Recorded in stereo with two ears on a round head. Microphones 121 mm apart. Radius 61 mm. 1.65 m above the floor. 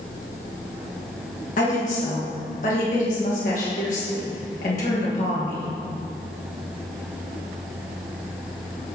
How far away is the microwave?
No microwave in this recording.